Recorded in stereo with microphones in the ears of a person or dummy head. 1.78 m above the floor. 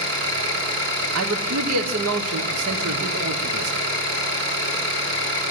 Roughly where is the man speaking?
Right.